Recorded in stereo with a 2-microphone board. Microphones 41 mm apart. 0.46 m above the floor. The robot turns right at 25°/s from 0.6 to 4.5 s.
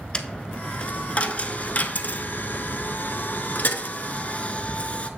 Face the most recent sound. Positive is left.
turn(degrees=35)  # may be behind; listen again after turning